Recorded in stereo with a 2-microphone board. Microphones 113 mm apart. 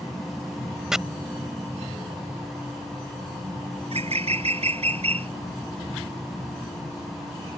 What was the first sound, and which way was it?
Chopping, 5° right (ahead or behind).